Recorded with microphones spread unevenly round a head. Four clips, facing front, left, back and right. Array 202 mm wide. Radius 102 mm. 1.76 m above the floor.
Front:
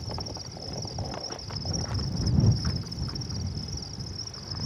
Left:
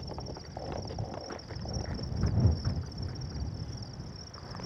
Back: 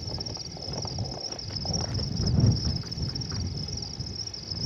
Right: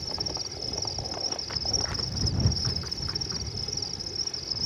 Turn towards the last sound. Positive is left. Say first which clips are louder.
# right 3 dB, front 1 dB
turn(degrees=-100)